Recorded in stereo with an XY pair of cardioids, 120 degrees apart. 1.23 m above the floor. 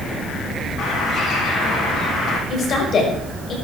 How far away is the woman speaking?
About 6 m.